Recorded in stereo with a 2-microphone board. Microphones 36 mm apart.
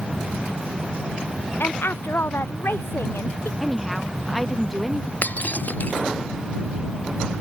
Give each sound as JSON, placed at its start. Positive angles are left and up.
{"t": 1.6, "sound": "a woman speaking", "side_deg": 70}
{"t": 3.6, "sound": "a woman speaking", "side_deg": 0}
{"t": 5.2, "sound": "breaking glass", "side_deg": 45}